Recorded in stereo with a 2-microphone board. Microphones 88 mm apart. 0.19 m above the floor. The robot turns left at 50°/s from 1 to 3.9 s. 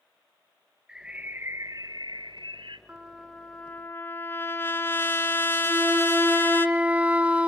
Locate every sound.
0.9 s a bird: 10° right, 1.3 m; by 2.8 s 100° right, 1.3 m
2.9 s a trumpet: 160° right, 1.5 m; by 6.7 s 150° left, 1.5 m
5.7 s a flute: 15° right (ahead or behind), 0.9 m